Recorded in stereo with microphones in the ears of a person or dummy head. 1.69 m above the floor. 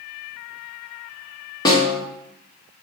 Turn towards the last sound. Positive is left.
turn(degrees=25)  # may be behind; listen again after turning